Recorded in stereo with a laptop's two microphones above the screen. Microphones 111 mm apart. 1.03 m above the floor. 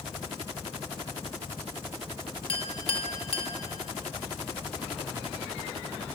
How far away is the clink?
About 0.7 m.